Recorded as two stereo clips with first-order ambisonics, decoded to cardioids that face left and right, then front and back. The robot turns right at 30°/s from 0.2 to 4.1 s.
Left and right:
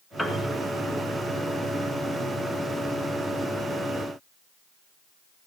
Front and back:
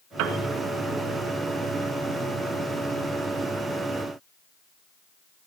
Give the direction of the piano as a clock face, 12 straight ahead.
6 o'clock.